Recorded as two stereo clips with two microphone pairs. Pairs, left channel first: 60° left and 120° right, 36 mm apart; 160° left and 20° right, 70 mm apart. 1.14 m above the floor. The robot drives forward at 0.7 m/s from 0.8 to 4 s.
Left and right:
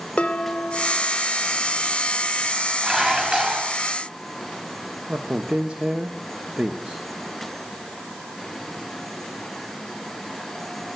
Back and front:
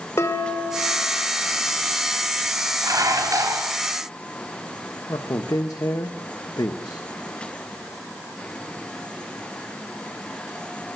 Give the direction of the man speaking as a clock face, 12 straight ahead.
6 o'clock.